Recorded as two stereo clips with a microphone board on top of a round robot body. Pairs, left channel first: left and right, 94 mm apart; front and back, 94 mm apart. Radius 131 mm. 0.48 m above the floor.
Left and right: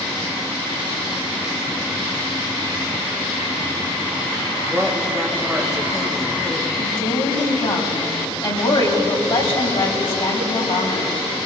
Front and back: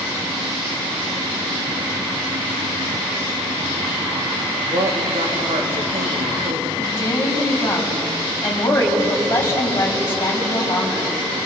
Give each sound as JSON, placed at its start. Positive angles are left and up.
{"t": 4.7, "sound": "a woman speaking", "azimuth_deg": -175, "distance_m": 3.0}
{"t": 6.8, "sound": "a woman speaking", "azimuth_deg": 60, "distance_m": 5.0}